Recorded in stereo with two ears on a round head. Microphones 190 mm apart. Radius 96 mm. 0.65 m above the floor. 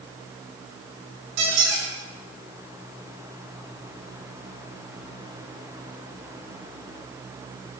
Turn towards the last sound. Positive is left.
turn(degrees=-55)  # may be behind; listen again after turning